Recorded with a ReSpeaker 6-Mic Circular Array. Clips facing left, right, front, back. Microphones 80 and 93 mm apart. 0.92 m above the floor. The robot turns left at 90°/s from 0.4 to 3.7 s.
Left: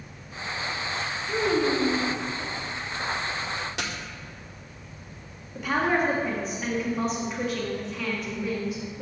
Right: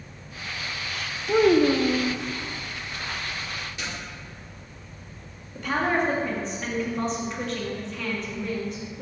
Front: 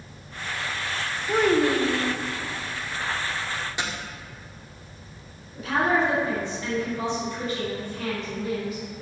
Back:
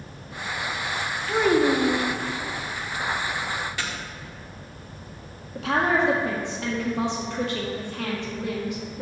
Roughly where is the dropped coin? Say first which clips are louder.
Left 2 dB, front 1 dB; left.